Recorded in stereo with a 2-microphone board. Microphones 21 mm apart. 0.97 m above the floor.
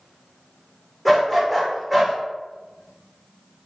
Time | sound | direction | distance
1.1 | a dog barking | centre (ahead or behind) | 0.6 m